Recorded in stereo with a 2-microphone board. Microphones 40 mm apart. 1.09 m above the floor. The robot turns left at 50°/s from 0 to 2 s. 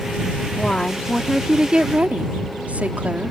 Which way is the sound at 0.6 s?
30° left.